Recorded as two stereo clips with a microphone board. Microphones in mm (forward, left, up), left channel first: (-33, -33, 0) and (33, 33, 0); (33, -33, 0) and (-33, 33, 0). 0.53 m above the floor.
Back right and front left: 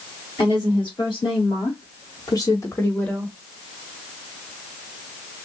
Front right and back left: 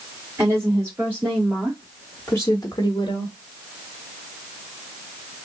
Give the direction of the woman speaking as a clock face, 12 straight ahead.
6 o'clock.